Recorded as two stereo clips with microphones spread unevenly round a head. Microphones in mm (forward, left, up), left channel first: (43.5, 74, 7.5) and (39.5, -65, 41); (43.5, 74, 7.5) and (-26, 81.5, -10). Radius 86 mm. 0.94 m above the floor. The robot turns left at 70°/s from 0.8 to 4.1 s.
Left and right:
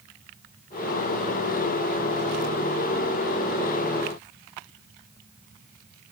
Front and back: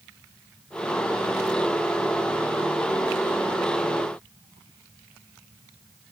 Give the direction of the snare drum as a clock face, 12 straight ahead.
I don't hear a snare drum.